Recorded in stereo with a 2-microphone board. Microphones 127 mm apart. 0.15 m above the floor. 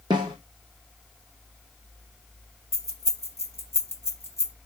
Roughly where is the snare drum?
Right.